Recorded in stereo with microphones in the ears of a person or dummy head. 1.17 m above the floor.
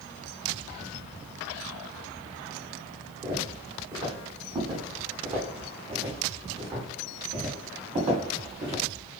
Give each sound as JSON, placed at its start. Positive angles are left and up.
{"t": 3.2, "sound": "footsteps", "side_deg": -25, "distance_m": 4.5}